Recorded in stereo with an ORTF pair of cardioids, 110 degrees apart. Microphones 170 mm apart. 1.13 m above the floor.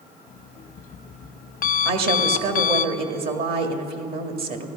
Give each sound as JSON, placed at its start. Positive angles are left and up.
{"t": 0.3, "sound": "an alarm clock", "azimuth_deg": 60, "distance_m": 0.9}
{"t": 1.9, "sound": "a woman speaking", "azimuth_deg": -65, "distance_m": 2.0}